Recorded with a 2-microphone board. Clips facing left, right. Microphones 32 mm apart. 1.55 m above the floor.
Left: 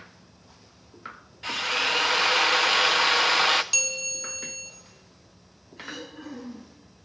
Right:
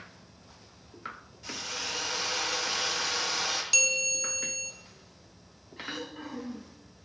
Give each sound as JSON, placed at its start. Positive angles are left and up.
{"t": 1.4, "sound": "a drill", "side_deg": 55, "distance_m": 0.8}
{"t": 3.7, "sound": "a bell", "side_deg": -5, "distance_m": 2.5}
{"t": 5.8, "sound": "throat clearing", "side_deg": -40, "distance_m": 7.5}